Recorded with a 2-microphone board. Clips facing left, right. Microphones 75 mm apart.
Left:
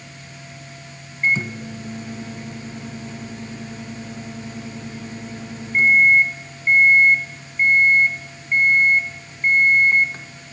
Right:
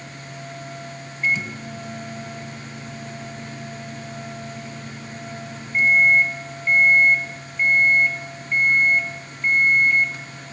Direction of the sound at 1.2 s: 35° left (ahead or behind).